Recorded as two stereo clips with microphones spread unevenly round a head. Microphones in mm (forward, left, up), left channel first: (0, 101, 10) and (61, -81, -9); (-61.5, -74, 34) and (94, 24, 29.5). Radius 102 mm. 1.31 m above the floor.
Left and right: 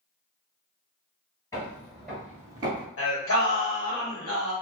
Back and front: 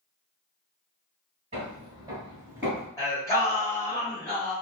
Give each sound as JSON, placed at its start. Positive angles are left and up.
{"t": 1.5, "sound": "footsteps", "azimuth_deg": 65, "distance_m": 1.4}
{"t": 3.0, "sound": "singing", "azimuth_deg": 140, "distance_m": 1.3}